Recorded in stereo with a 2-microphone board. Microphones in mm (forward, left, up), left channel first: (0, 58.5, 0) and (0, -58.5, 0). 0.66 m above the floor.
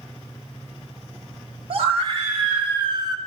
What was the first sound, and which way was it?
A scream, 50° right (ahead or behind).